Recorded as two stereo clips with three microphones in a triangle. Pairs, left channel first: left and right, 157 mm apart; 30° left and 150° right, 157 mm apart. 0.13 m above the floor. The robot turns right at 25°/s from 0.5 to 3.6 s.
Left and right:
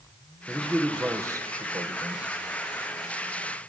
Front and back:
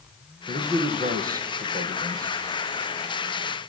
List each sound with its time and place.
0.5 s a man speaking: straight behind, 3.5 m; by 2.3 s 135° right, 3.5 m